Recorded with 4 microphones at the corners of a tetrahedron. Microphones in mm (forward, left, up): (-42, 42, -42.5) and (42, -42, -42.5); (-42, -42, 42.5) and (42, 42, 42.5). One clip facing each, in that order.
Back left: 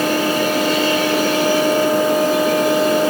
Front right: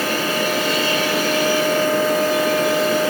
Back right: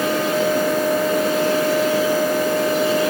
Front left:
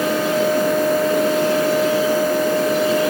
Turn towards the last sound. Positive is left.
No sound to turn to.